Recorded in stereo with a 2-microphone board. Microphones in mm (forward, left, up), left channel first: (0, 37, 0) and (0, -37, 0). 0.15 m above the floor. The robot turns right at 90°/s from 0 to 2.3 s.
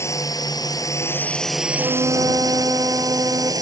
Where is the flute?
100° right; by 3.5 s 55° right.